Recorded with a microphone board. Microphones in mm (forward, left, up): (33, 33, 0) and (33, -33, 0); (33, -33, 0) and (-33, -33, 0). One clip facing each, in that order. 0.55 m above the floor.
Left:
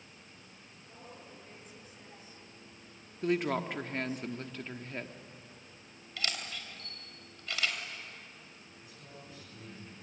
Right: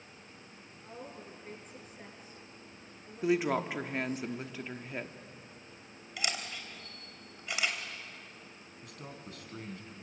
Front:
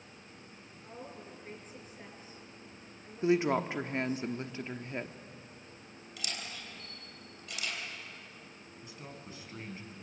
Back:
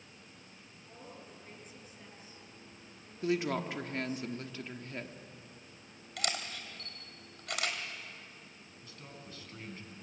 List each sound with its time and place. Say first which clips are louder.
0.8 s a woman speaking: right 5 dB, front 4 dB; 50° right, 7 m
3.2 s a woman speaking: right 2 dB, front 4 dB; 20° right, 0.9 m
6.2 s a camera shutter: right 1 dB, back 5 dB; 160° right, 3 m
8.8 s a man speaking: right 6 dB, front 3 dB; 70° right, 4.5 m